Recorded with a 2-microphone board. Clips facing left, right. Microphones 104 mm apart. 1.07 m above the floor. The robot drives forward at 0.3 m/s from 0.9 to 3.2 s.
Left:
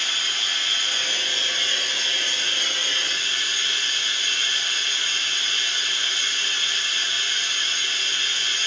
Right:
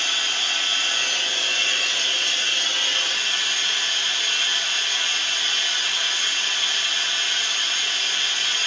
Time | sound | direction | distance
0.0 | running water | 75° right (ahead or behind) | 2.5 m